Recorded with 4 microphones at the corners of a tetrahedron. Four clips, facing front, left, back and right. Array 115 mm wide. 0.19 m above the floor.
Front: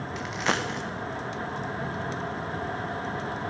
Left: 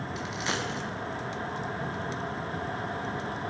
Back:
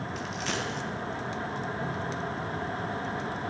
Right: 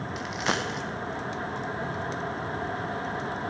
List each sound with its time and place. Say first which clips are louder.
0.2 s a dropped coin: right 4 dB, front 7 dB; 35° right, 1.4 m